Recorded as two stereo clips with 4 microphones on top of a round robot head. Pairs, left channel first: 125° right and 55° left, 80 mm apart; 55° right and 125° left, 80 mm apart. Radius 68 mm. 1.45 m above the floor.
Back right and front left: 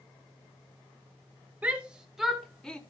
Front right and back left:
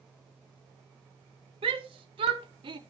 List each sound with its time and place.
1.6 s a shout: 130° left, 1.9 m; by 2.8 s 155° left, 1.6 m